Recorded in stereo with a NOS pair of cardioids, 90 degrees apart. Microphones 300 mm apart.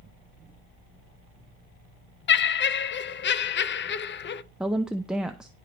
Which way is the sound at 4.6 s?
Straight ahead.